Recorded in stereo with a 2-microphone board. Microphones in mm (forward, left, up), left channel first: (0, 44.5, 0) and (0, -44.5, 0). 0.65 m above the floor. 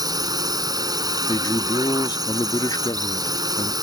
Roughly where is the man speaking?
Left.